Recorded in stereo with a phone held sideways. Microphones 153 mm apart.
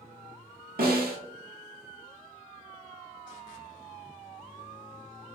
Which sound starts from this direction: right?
A snare drum, at 0.8 s.